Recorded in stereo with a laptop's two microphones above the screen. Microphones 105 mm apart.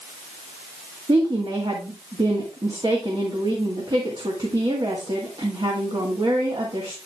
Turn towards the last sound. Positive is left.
turn(degrees=-45)  # may be behind; listen again after turning